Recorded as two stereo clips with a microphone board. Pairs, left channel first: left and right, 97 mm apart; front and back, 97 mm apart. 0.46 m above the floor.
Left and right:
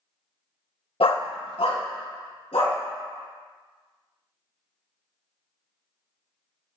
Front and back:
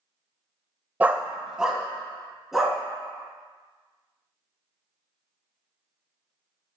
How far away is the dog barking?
About 0.5 m.